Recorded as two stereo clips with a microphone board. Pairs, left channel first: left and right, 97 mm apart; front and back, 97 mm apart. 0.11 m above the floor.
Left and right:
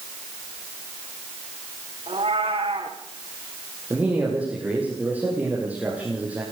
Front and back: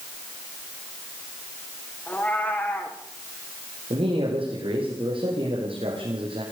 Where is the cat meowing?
75° right, 4.5 m.